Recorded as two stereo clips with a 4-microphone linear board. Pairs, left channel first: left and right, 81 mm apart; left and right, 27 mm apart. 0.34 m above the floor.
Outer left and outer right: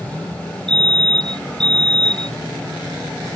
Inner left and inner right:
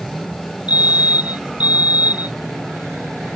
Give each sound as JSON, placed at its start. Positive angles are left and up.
{"t": 0.7, "sound": "a fire alarm", "side_deg": -70}